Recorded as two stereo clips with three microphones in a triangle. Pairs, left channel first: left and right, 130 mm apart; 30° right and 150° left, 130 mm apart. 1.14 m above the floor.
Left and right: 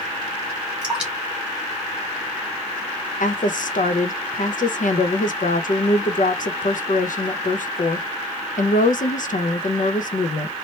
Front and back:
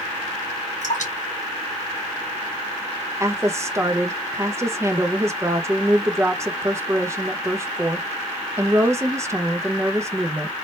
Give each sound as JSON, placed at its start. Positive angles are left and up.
{"t": 0.8, "sound": "dripping", "azimuth_deg": -10, "distance_m": 1.9}
{"t": 3.2, "sound": "a woman speaking", "azimuth_deg": 85, "distance_m": 0.7}